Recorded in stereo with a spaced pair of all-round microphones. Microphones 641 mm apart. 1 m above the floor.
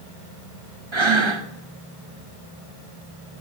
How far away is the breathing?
About 1.0 m.